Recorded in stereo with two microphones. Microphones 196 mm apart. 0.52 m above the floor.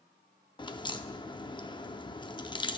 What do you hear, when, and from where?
0.6 s a crack: 25° left (ahead or behind), 0.5 m